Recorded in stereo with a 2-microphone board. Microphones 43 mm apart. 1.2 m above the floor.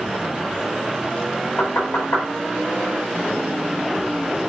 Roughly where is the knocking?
Left.